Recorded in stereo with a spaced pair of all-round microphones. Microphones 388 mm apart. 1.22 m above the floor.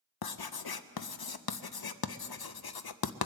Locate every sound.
0.2 s writing: 70° left (ahead or behind), 0.5 m